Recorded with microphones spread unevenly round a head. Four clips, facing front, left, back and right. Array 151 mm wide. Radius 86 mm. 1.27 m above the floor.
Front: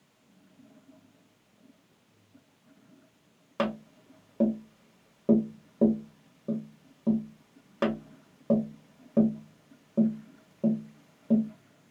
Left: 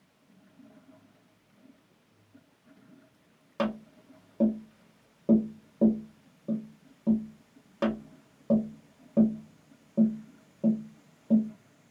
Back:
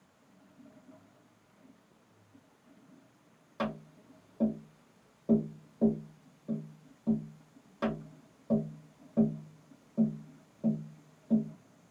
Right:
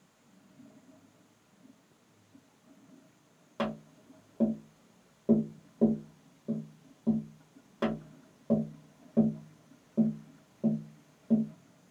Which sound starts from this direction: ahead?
Tapping, at 3.6 s.